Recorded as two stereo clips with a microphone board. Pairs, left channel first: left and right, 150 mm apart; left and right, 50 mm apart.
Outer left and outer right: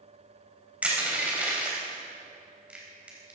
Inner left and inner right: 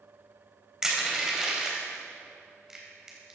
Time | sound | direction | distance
0.8 | crushing | 10° right (ahead or behind) | 3.5 m